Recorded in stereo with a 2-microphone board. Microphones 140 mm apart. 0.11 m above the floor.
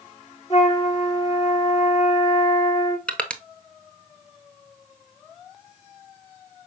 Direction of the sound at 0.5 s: 50° left (ahead or behind).